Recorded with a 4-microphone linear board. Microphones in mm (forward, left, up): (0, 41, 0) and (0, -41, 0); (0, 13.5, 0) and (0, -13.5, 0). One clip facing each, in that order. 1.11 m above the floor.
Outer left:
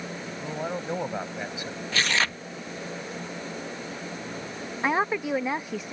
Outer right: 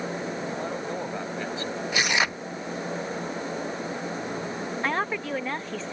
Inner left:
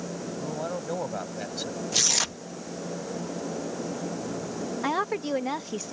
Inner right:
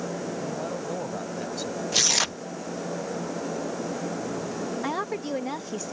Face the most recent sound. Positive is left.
turn(degrees=15)  # may be behind; listen again after turning